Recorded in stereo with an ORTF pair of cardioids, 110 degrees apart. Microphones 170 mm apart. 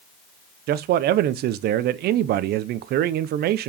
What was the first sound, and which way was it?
A man speaking, 70° right.